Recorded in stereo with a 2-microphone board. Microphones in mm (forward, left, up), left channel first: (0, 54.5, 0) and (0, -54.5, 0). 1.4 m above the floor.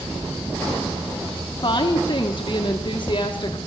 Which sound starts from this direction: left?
A woman speaking, at 1.6 s.